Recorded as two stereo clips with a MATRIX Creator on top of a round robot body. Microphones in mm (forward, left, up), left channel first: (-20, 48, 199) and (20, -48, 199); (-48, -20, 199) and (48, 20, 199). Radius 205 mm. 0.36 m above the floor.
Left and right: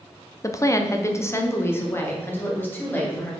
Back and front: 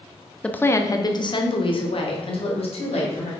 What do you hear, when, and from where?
0.4 s a woman speaking: 130° left, 1.0 m; by 3.3 s 175° right, 3 m